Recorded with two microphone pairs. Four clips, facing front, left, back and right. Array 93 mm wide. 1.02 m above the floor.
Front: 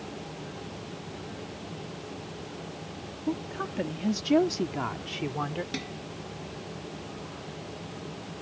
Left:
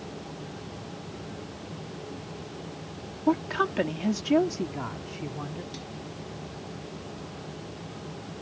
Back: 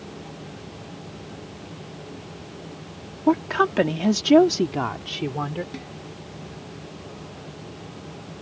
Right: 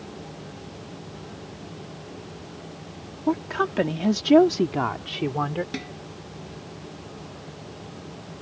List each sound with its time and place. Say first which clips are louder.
3.3 s a woman speaking: right 1 dB, back 13 dB; straight behind; by 5.6 s 110° right
5.7 s dishes clattering: right 7 dB, front 1 dB; 75° right